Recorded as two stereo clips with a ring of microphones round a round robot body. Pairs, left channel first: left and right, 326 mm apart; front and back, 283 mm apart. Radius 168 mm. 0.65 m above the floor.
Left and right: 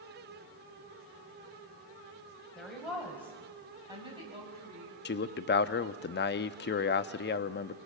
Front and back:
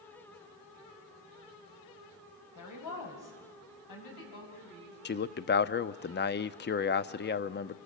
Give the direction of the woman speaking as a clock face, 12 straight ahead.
12 o'clock.